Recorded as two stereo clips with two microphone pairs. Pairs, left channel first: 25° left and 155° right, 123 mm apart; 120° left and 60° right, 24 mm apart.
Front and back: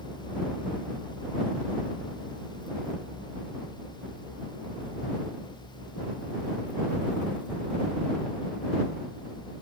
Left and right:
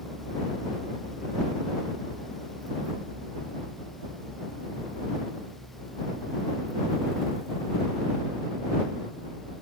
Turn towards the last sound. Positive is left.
No sound to turn to.